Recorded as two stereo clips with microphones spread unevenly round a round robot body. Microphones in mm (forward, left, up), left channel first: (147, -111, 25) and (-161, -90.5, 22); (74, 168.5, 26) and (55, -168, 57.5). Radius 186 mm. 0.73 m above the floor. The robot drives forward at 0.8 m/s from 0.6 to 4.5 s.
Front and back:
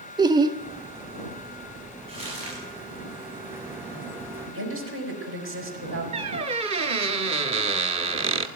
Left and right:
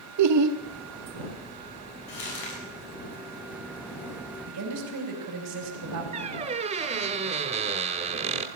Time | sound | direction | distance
0.2 | laughter | 110° right | 0.7 m
2.1 | crumpling | 100° left | 7.5 m
4.5 | a woman speaking | 140° right | 4.5 m
6.1 | a squeak | 130° right | 0.7 m